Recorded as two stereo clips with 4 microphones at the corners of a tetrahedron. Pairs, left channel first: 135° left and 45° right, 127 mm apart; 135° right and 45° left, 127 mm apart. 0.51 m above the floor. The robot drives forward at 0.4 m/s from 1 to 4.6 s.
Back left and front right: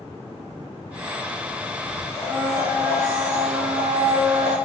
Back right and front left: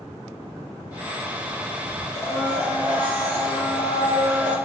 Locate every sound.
2.1 s a blender: 170° right, 0.8 m; by 4.5 s 175° right, 1.5 m